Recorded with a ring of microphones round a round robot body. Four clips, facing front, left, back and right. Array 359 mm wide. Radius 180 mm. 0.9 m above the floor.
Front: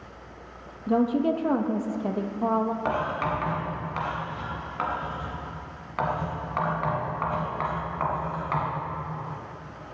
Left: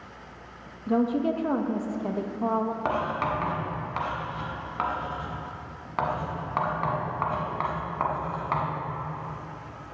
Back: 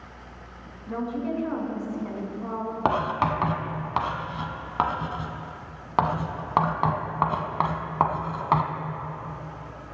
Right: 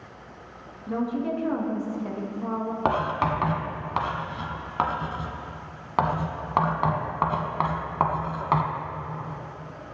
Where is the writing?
150° right, 1.2 m.